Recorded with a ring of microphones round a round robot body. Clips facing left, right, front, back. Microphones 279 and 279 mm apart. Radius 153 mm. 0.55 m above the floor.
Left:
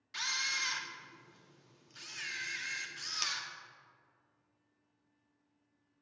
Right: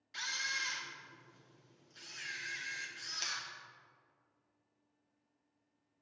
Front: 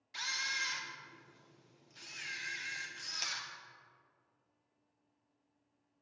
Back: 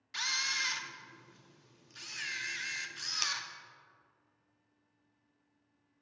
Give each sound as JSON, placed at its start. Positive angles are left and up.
{"t": 0.1, "sound": "a camera shutter", "azimuth_deg": 145, "distance_m": 0.7}